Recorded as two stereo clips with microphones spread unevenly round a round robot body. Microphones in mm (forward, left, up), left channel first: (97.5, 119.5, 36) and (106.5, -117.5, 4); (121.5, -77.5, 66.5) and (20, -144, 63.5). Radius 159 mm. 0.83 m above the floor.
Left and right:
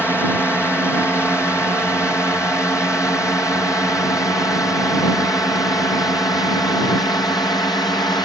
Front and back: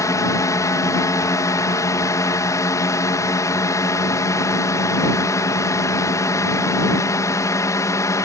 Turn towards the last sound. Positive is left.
turn(degrees=25)